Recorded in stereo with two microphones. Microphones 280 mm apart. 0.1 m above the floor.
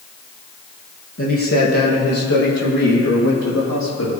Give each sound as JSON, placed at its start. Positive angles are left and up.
{"t": 1.2, "sound": "a man speaking", "side_deg": 50, "distance_m": 4.0}